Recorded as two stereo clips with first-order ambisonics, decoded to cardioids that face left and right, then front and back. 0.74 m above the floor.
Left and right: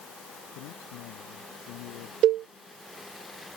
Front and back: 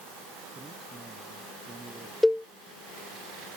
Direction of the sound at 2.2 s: 85° right.